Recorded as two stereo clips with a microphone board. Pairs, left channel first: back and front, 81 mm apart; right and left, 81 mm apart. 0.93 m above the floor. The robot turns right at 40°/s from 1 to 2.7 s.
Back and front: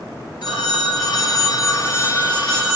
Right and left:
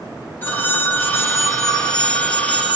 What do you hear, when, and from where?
0.4 s a phone ringing: 155° right, 1.8 m; by 2.8 s 85° right, 1.8 m